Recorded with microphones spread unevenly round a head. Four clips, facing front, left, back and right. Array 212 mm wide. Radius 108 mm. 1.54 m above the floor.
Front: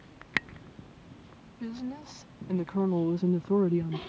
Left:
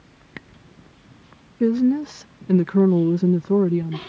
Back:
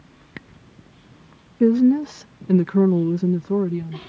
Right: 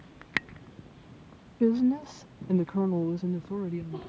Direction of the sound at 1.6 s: 160° left.